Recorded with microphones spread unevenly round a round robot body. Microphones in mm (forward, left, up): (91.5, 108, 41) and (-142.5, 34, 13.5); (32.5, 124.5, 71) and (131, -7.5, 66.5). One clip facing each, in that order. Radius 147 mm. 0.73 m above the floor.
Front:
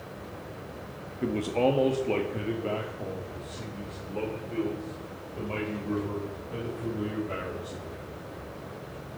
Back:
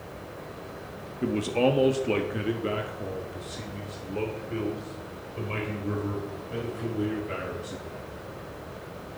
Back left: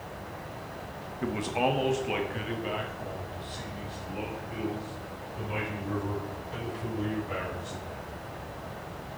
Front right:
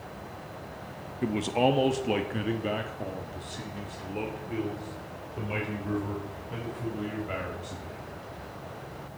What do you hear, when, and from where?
1.2 s a man speaking: 95° right, 0.8 m